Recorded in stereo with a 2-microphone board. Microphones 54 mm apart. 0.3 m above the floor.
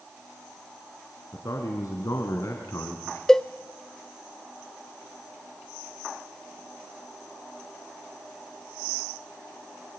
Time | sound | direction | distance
1.3 | a man speaking | 70° left (ahead or behind) | 3 m
3.3 | a cowbell | 10° left (ahead or behind) | 0.6 m